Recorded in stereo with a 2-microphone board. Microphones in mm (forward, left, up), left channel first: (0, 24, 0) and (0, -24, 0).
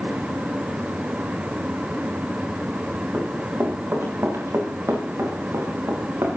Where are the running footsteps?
50° right (ahead or behind), 8.5 m; by 6.4 s 70° right (ahead or behind), 8 m.